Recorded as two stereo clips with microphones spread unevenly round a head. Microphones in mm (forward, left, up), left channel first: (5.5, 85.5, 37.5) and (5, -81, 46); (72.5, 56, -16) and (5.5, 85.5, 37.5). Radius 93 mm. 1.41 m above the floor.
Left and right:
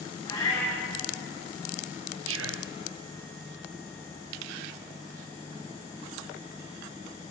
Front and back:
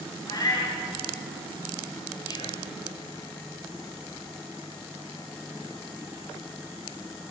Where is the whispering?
105° right, 0.6 m.